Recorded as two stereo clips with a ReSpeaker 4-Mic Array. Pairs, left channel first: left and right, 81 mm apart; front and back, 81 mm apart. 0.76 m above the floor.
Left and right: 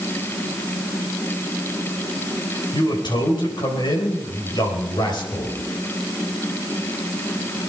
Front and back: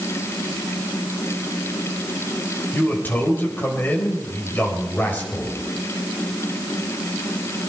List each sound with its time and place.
2.7 s a man speaking: 65° left, 4 m